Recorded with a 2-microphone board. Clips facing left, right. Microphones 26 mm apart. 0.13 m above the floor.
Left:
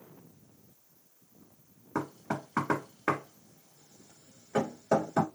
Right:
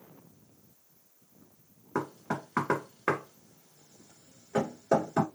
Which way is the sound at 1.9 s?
10° right (ahead or behind).